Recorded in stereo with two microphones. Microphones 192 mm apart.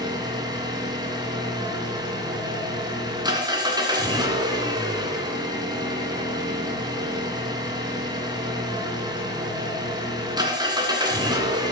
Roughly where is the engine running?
Right.